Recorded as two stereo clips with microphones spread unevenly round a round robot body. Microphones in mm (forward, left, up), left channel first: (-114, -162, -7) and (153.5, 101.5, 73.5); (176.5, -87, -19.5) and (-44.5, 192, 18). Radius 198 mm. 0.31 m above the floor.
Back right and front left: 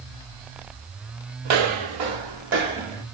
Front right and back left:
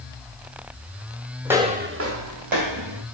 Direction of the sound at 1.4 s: 45° left.